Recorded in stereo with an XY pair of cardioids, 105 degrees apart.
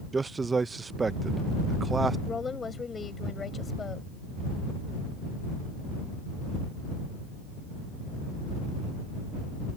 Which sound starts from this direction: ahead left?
A woman speaking, at 2.3 s.